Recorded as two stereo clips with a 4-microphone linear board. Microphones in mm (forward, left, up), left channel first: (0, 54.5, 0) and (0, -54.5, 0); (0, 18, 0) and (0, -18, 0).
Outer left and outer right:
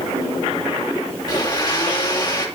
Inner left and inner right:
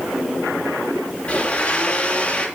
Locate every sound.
1.3 s a blender: 40° left (ahead or behind), 3 m